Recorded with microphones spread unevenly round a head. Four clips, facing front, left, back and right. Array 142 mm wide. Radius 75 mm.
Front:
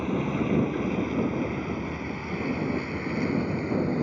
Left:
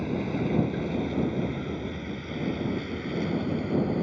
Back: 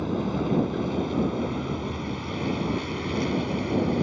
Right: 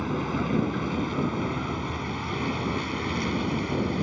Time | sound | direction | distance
0.0 | a vehicle | 60° right | ?